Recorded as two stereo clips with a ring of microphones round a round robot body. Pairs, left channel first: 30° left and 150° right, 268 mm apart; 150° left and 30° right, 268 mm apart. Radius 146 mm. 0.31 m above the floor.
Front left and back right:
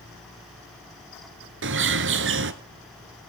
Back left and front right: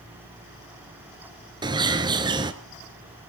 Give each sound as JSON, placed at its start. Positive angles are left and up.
{"t": 1.6, "sound": "a bird", "azimuth_deg": -105, "distance_m": 1.0}